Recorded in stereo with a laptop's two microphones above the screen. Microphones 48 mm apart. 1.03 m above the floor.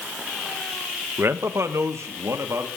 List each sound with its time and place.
1.2 s a man speaking: 55° right (ahead or behind), 1.0 m; by 2.7 s 75° right (ahead or behind), 2.5 m